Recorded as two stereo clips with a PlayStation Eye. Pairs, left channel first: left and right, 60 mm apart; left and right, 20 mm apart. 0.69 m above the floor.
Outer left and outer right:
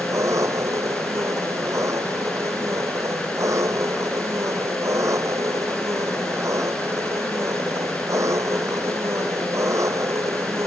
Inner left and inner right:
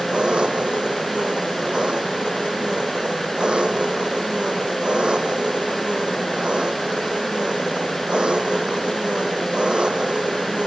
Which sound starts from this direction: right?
An engine running, at 0.0 s.